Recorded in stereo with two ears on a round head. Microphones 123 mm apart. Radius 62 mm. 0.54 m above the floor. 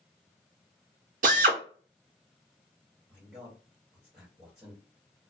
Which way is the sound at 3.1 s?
5° right (ahead or behind).